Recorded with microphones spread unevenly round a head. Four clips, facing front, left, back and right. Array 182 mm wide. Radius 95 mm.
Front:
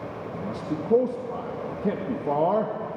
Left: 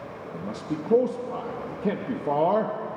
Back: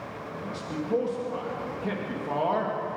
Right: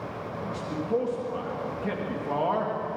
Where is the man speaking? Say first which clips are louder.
Left 2 dB, front 3 dB; 45° left, 1.8 m.